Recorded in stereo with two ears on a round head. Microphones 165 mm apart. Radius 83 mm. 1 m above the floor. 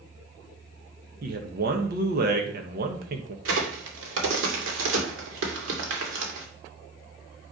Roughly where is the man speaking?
Right.